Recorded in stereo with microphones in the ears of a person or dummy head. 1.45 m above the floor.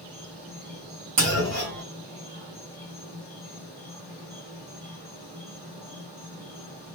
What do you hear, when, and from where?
0.0 s an insect: 45° right (ahead or behind), 1.8 m
1.2 s a clunk: 40° right (ahead or behind), 2 m